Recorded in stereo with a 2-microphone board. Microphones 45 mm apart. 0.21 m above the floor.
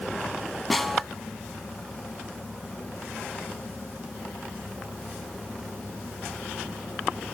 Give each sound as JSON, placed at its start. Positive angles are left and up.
{"t": 0.7, "sound": "a snare drum", "side_deg": 5, "distance_m": 0.9}